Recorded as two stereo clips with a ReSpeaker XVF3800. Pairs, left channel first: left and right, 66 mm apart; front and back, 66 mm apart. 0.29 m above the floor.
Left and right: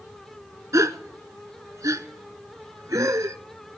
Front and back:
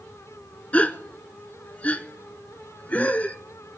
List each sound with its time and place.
0.7 s a gasp: 65° right, 0.7 m